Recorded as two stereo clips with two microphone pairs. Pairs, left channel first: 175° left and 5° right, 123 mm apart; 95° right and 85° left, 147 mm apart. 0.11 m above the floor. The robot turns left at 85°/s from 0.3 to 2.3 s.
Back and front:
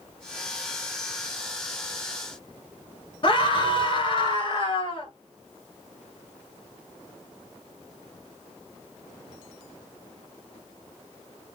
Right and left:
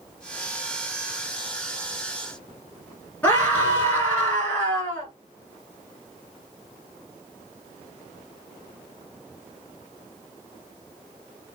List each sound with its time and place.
3.2 s a scream: 165° right, 1.4 m